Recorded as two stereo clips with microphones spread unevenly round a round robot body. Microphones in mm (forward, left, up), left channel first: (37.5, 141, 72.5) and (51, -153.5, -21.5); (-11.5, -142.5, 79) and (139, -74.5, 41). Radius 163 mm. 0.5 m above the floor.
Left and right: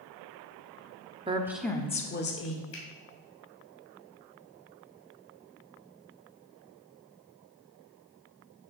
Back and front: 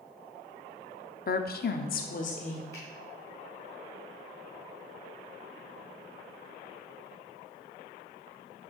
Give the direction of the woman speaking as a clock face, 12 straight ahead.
4 o'clock.